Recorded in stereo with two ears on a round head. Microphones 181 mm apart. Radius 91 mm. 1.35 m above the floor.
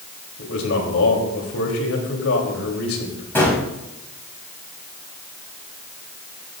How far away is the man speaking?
About 3.5 m.